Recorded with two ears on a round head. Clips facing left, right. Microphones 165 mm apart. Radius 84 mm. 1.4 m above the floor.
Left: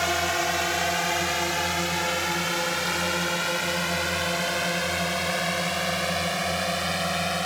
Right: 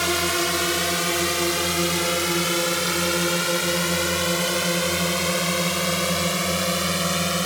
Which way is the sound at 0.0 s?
60° right (ahead or behind).